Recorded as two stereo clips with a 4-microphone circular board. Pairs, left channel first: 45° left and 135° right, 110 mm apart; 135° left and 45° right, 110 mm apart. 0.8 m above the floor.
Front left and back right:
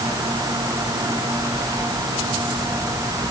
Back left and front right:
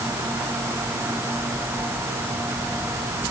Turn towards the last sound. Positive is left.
No sound to turn to.